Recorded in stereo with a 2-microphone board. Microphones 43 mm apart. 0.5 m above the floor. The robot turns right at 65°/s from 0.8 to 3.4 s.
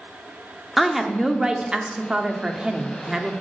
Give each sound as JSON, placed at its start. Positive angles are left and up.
{"t": 0.8, "sound": "a woman speaking", "side_deg": 0, "distance_m": 0.8}